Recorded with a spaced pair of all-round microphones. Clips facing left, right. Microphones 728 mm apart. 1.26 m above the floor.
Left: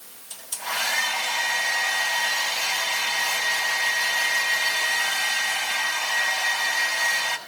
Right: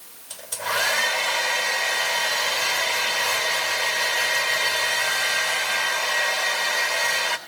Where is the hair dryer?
75° right (ahead or behind), 3.5 m.